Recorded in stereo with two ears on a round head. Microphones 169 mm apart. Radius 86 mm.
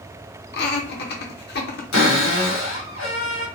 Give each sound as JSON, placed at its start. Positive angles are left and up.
{"t": 0.5, "sound": "laughter", "side_deg": 55, "distance_m": 0.7}
{"t": 1.9, "sound": "a cupboard door", "side_deg": 80, "distance_m": 1.5}